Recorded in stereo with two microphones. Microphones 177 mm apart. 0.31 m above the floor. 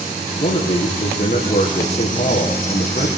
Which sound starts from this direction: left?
A man speaking, at 0.4 s.